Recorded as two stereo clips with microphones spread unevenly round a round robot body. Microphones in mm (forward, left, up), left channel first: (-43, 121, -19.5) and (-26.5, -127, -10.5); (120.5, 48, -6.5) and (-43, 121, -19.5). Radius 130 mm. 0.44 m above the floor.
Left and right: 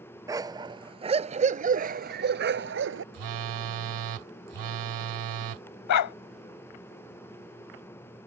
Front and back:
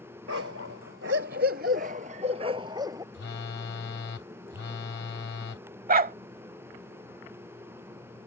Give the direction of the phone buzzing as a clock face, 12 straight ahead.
3 o'clock.